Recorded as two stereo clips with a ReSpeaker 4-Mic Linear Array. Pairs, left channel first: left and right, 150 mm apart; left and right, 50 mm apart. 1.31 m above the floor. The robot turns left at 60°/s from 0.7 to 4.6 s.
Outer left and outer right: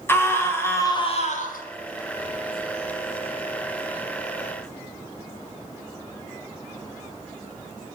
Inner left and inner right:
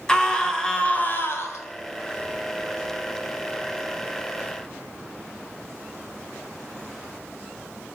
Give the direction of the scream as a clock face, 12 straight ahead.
6 o'clock.